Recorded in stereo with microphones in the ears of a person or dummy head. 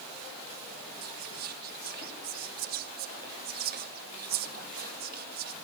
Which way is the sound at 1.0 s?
35° right (ahead or behind).